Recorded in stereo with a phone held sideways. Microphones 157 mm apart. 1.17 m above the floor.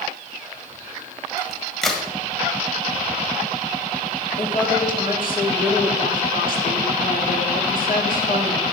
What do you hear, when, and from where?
1.4 s a crack: centre (ahead or behind), 1.8 m
4.4 s a woman speaking: 65° left (ahead or behind), 3 m